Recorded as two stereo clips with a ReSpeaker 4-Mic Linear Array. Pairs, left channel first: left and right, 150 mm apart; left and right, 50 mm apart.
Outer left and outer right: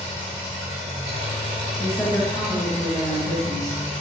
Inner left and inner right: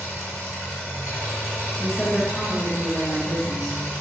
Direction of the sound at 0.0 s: 50° right (ahead or behind).